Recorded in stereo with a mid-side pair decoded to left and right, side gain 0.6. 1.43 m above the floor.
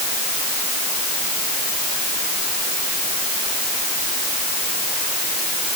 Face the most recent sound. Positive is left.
No sound to turn to.